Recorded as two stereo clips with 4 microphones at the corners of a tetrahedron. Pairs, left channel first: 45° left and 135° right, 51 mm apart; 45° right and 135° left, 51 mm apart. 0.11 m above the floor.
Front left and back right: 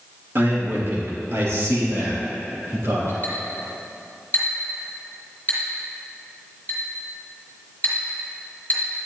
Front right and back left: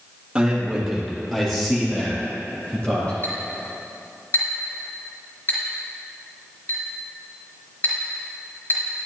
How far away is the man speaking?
About 3 m.